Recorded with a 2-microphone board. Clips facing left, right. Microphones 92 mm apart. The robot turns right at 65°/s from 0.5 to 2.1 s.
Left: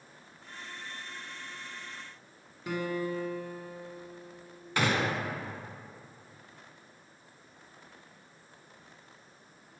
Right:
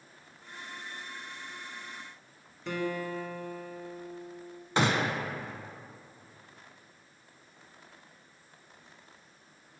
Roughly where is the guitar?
Centre.